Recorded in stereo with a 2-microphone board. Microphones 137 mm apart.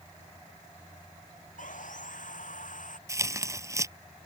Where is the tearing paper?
20° right (ahead or behind).